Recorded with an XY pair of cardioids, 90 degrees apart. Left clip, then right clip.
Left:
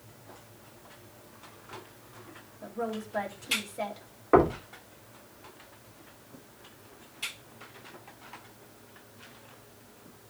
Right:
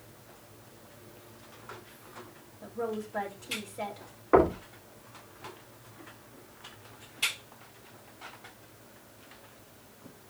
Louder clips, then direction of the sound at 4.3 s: Left 1 dB; 15° left.